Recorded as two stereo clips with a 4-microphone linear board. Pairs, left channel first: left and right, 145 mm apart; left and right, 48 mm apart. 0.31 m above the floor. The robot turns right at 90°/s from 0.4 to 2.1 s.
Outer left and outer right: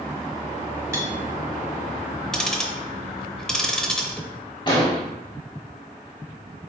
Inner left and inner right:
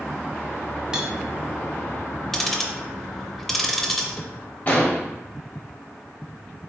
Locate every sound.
0.9 s cutlery clinking: 15° right (ahead or behind), 0.8 m; by 1.1 s 25° right (ahead or behind), 0.8 m
2.3 s ticking: 5° left (ahead or behind), 0.5 m
4.7 s an explosion: 30° left (ahead or behind), 1.1 m